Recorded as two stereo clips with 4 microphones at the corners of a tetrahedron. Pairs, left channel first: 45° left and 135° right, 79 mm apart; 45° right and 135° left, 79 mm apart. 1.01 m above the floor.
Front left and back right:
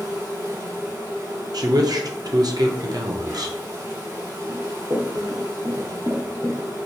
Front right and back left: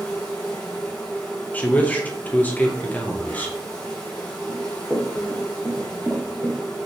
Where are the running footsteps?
140° right, 1.4 m; by 6.6 s straight behind, 2 m.